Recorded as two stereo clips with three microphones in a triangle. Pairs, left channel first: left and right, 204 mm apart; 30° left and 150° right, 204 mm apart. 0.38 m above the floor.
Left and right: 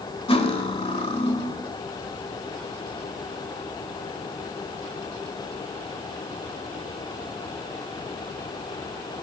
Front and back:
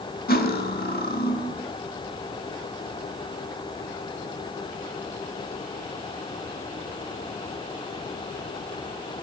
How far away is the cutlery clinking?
About 0.9 m.